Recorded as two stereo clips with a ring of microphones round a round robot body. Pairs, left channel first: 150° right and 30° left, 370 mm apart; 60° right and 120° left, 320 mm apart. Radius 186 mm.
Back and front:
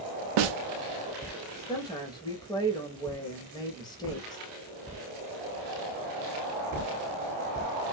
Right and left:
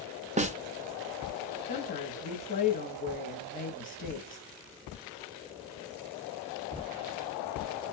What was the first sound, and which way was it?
A snare drum, 50° left.